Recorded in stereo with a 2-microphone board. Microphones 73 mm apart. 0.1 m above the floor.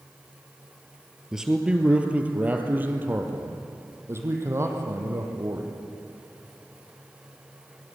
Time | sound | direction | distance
1.3 | a man speaking | 5° right (ahead or behind) | 2.0 m